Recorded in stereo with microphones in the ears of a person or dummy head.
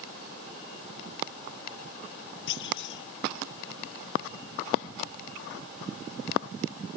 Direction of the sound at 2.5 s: 60° left (ahead or behind).